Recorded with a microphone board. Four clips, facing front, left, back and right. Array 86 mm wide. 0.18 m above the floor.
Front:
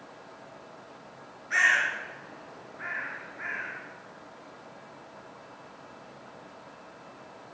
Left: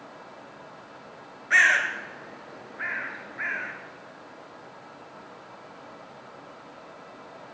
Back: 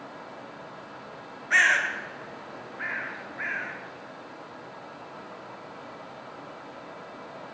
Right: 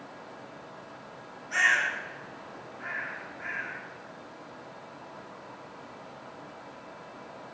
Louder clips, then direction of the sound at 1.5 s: Left 5 dB, back 2 dB; 115° left.